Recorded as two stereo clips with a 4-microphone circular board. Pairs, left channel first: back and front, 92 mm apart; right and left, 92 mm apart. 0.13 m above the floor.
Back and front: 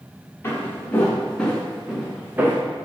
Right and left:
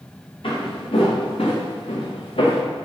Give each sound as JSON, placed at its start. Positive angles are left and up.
{"t": 0.4, "sound": "footsteps", "azimuth_deg": -115, "distance_m": 1.6}